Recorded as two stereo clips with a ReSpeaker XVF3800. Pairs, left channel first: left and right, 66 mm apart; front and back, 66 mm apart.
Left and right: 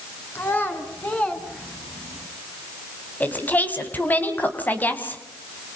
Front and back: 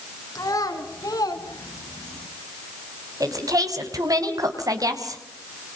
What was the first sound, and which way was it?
A child speaking, 30° left.